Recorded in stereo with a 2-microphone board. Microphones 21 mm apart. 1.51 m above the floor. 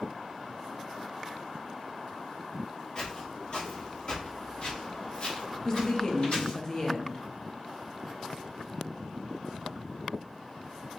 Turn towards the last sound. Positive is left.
turn(degrees=25)  # may be behind; listen again after turning